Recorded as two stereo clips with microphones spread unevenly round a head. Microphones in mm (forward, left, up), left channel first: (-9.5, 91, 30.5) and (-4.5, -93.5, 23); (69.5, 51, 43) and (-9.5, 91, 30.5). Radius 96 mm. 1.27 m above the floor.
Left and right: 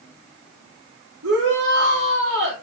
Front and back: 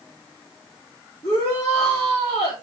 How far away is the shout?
About 3.5 m.